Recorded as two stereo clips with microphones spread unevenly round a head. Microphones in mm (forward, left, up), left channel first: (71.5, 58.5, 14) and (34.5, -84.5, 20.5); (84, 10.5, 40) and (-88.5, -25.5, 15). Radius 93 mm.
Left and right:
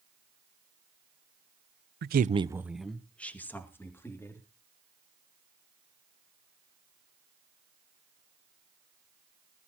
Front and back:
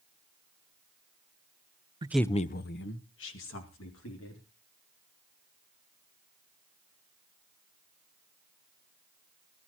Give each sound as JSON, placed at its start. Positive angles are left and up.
{"t": 2.0, "sound": "a woman speaking", "azimuth_deg": -105, "distance_m": 0.6}